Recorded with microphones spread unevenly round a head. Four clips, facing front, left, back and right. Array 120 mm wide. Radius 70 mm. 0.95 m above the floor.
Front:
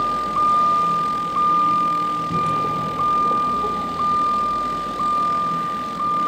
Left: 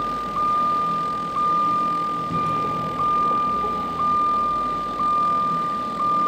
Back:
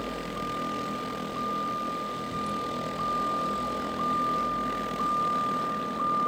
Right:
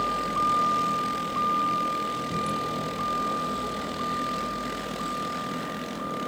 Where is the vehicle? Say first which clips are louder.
Left 2 dB, front 14 dB; 5° right; by 6.3 s 25° left.